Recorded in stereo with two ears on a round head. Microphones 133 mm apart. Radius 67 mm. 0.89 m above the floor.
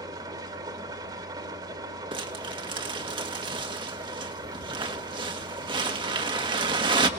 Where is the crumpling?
30° right (ahead or behind), 1.5 m.